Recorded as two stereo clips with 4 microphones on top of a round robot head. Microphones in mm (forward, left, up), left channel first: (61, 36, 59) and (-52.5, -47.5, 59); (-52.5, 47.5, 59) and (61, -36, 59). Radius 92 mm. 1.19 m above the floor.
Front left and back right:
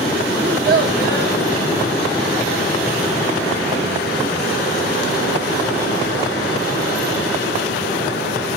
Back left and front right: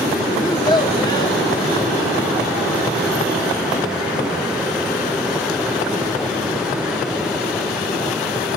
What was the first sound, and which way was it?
A child speaking, 155° right.